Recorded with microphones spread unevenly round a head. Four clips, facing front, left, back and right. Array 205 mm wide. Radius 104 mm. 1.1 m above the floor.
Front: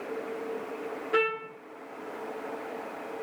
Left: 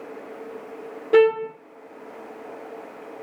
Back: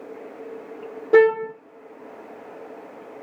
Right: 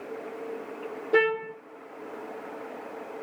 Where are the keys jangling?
I don't hear keys jangling.